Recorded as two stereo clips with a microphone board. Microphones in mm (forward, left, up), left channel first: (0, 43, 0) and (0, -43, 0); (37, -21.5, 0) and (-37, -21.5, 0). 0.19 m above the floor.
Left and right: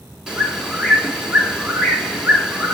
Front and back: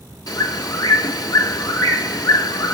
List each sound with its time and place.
0.3 s a bird: 10° right, 2.5 m